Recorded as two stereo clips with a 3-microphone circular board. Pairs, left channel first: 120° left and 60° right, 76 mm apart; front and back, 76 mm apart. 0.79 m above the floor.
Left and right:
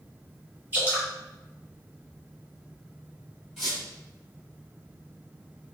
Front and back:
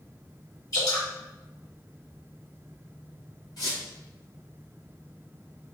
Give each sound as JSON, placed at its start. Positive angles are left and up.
{"t": 0.7, "sound": "dripping", "azimuth_deg": 0, "distance_m": 1.5}
{"t": 3.6, "sound": "a squeak", "azimuth_deg": 30, "distance_m": 1.6}